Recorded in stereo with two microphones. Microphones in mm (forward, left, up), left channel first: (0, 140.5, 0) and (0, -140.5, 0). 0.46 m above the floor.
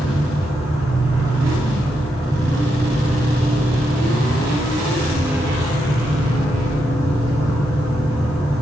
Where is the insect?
5° right (ahead or behind), 2.0 m.